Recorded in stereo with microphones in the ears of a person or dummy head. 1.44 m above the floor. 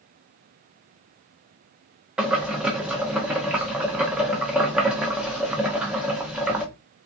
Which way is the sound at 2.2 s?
5° right (ahead or behind).